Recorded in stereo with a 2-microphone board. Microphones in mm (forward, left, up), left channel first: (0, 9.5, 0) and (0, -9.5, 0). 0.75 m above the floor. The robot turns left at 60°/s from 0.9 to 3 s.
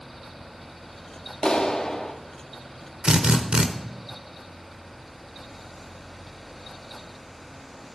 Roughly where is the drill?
Right.